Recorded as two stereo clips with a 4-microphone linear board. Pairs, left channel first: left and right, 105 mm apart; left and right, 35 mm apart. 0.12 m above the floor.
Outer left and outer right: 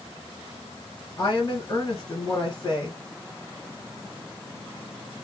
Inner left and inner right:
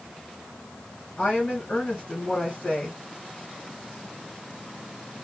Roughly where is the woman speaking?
Left.